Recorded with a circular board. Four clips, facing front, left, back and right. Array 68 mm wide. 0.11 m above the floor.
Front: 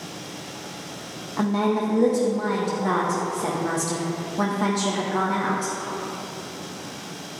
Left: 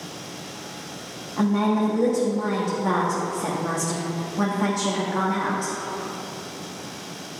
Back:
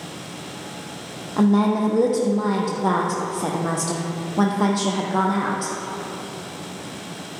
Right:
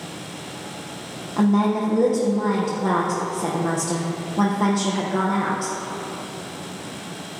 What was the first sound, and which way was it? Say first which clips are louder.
A woman speaking: right 2 dB, back 4 dB; 160° right.